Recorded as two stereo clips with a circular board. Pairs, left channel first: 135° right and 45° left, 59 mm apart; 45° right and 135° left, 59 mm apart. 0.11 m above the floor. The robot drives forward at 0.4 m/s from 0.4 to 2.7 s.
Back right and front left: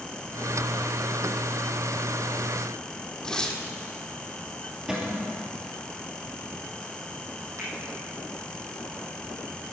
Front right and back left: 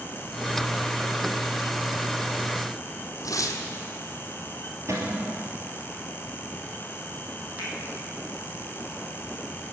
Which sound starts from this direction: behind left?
A cupboard door, at 4.9 s.